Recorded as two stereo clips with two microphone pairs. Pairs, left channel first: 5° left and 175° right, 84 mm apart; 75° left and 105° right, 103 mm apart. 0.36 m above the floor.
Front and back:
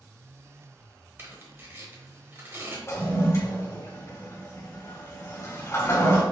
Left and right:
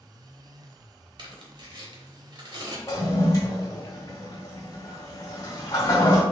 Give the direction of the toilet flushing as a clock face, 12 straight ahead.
10 o'clock.